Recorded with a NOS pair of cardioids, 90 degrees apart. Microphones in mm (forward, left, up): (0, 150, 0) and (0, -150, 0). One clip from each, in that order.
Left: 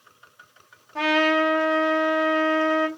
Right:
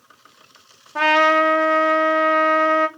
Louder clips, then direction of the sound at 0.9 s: Right 5 dB; 25° right.